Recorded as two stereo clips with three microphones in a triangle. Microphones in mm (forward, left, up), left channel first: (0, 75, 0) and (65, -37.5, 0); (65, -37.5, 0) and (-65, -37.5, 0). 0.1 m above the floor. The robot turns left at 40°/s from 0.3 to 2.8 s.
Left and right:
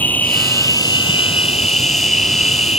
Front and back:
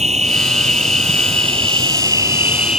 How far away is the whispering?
I don't hear whispering.